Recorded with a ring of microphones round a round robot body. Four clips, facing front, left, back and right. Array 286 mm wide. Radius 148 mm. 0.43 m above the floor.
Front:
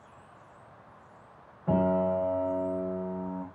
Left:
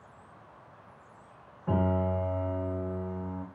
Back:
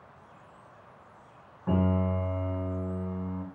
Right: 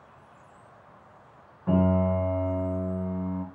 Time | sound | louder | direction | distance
1.7 | a piano | right 5 dB, front 3 dB | 135° right | 1.9 m